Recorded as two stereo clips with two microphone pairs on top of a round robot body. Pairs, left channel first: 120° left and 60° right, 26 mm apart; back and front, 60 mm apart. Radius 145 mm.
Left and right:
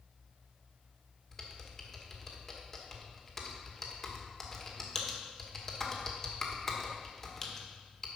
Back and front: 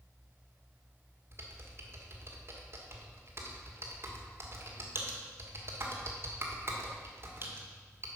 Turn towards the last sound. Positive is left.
turn(degrees=40)